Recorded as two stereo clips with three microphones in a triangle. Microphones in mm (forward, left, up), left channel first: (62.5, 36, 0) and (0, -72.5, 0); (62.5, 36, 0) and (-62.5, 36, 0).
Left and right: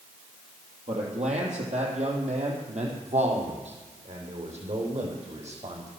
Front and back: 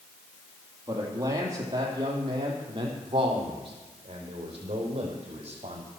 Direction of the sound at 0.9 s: 120° right.